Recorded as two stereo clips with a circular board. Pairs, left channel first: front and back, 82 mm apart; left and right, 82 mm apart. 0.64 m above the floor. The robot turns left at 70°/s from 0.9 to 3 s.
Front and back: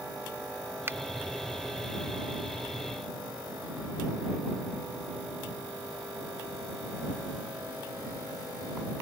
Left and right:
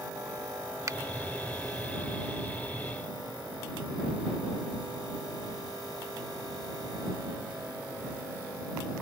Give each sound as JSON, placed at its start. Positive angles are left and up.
{"t": 0.9, "sound": "a finger snap", "azimuth_deg": -125}